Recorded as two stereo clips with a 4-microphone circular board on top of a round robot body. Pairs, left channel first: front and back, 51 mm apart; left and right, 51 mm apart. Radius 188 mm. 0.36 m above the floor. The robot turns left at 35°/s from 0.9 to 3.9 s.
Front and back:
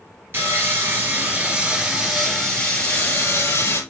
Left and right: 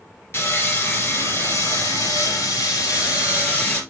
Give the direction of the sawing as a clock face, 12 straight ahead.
8 o'clock.